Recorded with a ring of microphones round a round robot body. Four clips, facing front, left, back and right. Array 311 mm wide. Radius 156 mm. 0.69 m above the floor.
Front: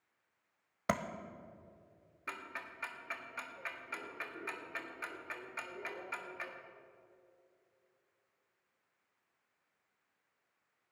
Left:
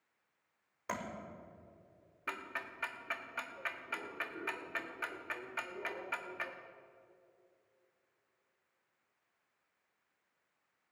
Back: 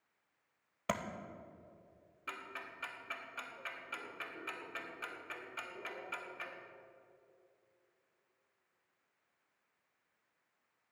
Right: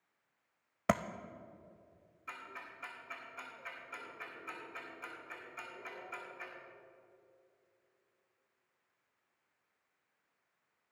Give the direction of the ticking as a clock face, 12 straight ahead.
9 o'clock.